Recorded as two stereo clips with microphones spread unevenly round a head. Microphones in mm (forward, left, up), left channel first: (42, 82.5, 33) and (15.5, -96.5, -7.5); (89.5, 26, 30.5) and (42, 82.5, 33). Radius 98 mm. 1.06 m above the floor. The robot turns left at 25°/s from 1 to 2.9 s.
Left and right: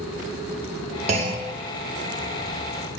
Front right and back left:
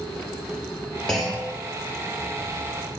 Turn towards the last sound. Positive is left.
turn(degrees=180)